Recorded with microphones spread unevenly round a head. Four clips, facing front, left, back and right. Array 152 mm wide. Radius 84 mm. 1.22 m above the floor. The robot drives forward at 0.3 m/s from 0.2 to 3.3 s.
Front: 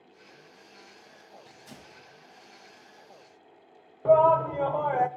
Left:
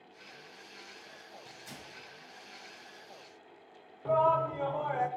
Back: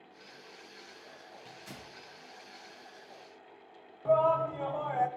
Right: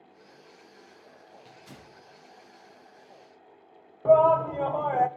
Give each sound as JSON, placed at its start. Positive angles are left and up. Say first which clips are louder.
{"t": 1.4, "sound": "tearing paper", "louder": "even, back 1 dB", "azimuth_deg": -165, "distance_m": 8.5}
{"t": 4.0, "sound": "a shout", "louder": "right 8 dB, front 7 dB", "azimuth_deg": -50, "distance_m": 0.7}